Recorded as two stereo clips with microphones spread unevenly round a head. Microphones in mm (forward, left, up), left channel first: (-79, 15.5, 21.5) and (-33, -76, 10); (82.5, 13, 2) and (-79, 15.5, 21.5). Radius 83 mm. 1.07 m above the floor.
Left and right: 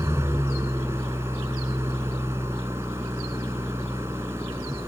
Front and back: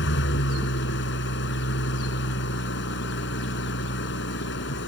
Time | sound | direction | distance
0.0 | an engine running | 15° left | ?